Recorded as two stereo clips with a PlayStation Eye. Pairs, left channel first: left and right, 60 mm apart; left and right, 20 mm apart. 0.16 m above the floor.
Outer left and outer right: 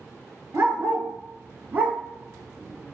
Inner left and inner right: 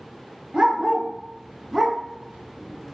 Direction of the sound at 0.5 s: 45° right (ahead or behind).